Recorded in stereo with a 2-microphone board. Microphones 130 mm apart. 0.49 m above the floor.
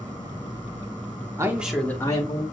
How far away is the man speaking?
About 1.0 m.